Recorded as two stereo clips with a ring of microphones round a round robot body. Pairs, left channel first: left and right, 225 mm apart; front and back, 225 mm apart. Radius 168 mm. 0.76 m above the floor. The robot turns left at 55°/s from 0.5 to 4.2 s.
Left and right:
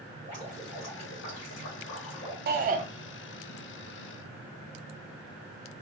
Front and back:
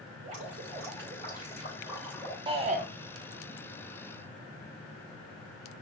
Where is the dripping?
175° left, 3.5 m; by 2.4 s 70° left, 3.5 m.